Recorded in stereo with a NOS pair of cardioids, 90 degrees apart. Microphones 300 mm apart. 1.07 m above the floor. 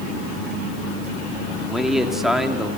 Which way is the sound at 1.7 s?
Straight ahead.